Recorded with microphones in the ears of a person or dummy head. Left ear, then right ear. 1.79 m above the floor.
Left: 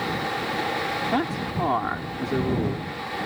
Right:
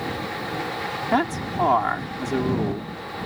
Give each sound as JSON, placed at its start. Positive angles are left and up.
{"t": 1.1, "sound": "a man speaking", "side_deg": -30}